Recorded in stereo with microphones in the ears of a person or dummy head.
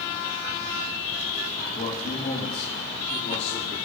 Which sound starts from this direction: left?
A man speaking, at 1.8 s.